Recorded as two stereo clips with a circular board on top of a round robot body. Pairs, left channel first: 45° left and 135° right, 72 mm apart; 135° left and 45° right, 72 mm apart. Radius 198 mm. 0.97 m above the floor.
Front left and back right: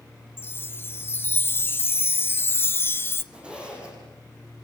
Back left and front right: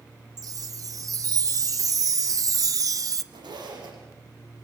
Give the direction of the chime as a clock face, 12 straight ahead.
12 o'clock.